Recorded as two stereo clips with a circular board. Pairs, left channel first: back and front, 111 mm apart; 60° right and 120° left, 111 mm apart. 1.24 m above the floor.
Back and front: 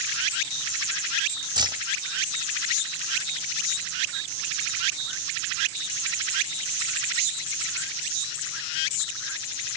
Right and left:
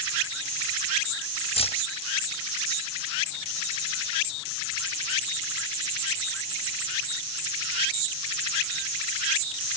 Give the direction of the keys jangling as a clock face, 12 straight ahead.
1 o'clock.